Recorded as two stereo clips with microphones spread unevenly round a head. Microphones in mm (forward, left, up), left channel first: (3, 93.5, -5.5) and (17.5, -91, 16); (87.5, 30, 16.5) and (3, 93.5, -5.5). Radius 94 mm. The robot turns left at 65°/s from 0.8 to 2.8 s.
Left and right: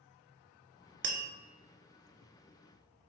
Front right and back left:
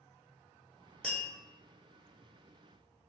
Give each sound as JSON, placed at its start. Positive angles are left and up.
{"t": 1.0, "sound": "tapping", "azimuth_deg": -125, "distance_m": 0.6}